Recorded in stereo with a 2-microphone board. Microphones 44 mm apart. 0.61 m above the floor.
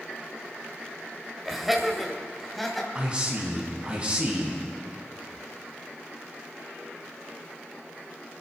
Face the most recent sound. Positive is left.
turn(degrees=-20)  # may be behind; listen again after turning